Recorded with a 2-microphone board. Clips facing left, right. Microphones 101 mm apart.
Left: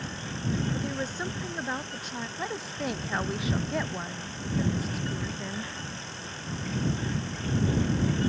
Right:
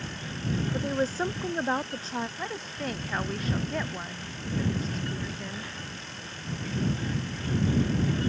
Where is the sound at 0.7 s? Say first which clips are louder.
Right 4 dB; 30° right (ahead or behind).